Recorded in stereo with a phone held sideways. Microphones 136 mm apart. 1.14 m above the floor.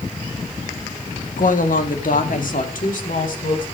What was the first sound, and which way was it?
A woman speaking, 70° left (ahead or behind).